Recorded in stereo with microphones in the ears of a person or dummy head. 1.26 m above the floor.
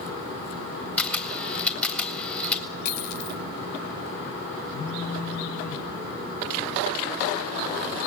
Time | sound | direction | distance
1.0 | a camera shutter | 5° left (ahead or behind) | 3 m
2.9 | a dropped coin | 55° left (ahead or behind) | 2.5 m
4.7 | a phone buzzing | 50° left (ahead or behind) | 0.7 m